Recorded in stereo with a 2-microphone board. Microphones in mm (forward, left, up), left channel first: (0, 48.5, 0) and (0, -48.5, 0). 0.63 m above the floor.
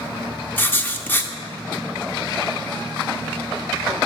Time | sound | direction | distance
0.6 | writing | 20° left (ahead or behind) | 0.8 m